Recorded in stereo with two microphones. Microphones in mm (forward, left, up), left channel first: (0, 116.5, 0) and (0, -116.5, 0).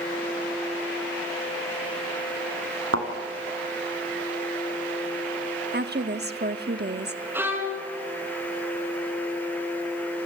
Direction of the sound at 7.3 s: 10° right (ahead or behind).